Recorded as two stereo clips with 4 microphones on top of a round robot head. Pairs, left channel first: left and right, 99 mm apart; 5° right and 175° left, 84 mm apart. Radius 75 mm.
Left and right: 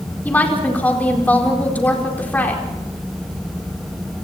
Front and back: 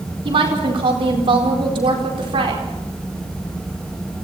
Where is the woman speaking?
165° left, 4.5 m.